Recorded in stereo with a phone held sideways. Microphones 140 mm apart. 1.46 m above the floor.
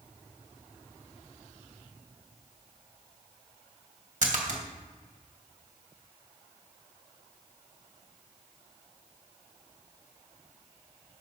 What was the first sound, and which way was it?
A splash, 60° right (ahead or behind).